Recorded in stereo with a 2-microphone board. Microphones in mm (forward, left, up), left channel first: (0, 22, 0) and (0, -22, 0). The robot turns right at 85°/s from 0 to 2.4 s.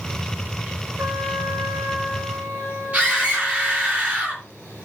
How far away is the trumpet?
About 5 m.